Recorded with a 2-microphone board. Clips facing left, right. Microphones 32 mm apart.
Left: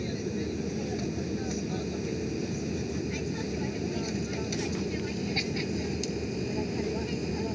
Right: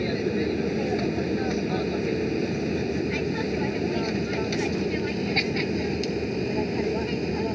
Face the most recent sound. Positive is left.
turn(degrees=-25)  # may be behind; listen again after turning